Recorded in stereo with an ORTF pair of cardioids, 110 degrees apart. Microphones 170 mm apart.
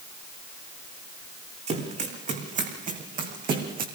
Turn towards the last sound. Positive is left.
turn(degrees=-55)